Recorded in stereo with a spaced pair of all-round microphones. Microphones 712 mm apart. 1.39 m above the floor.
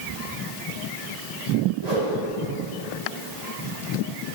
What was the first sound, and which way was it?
A whoosh, 65° right (ahead or behind).